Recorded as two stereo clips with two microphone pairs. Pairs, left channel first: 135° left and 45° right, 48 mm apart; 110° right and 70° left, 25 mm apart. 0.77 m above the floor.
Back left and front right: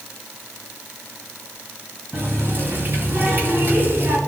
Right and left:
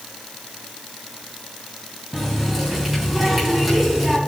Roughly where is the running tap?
Ahead.